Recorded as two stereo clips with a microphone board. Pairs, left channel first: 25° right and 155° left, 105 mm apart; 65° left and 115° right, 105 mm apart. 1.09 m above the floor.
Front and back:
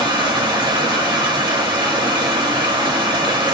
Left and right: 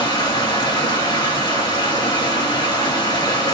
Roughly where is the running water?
Behind left.